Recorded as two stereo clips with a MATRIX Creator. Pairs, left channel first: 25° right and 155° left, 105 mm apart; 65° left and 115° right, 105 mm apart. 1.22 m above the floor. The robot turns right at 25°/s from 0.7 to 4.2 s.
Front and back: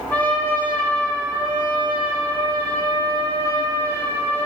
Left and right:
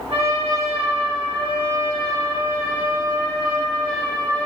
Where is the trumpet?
95° right, 5 m; by 4.5 s 5° right, 5 m.